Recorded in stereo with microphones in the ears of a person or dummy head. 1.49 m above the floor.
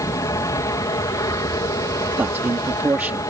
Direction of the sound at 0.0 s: 20° left (ahead or behind).